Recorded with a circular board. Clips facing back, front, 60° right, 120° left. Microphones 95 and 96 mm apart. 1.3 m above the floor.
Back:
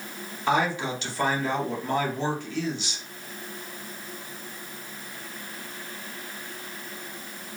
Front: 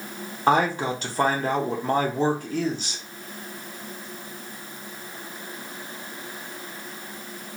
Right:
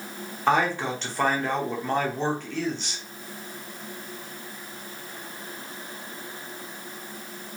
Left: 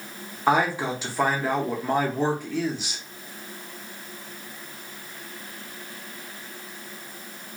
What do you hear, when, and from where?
0.5 s a man speaking: 40° left, 0.7 m